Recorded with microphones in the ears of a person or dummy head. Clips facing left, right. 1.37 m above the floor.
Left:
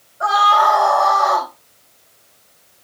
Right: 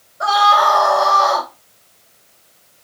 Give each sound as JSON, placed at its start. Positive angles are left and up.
{"t": 0.2, "sound": "a scream", "side_deg": -55, "distance_m": 2.0}